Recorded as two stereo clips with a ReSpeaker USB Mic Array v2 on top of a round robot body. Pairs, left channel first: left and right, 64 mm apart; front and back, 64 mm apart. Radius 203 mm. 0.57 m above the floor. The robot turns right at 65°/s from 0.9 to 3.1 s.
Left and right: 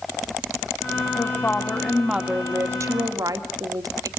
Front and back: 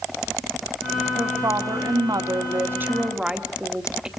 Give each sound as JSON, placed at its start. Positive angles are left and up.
{"t": 1.2, "sound": "a woman speaking", "azimuth_deg": 130, "distance_m": 2.0}